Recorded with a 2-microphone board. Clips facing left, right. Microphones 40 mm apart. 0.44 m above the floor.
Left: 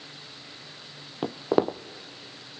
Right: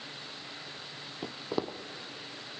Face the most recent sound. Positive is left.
turn(degrees=50)  # may be behind; listen again after turning